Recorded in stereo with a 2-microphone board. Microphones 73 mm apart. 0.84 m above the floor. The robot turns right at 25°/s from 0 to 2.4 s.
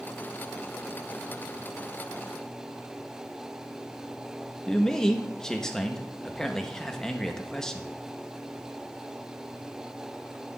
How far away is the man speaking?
About 0.9 m.